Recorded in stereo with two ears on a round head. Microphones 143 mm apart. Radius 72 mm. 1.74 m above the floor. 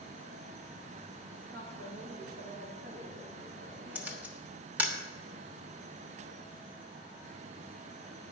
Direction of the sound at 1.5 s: 60° right (ahead or behind).